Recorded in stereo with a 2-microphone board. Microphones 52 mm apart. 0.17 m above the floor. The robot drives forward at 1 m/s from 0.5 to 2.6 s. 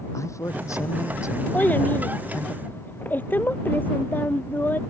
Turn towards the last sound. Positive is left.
turn(degrees=35)  # may be behind; listen again after turning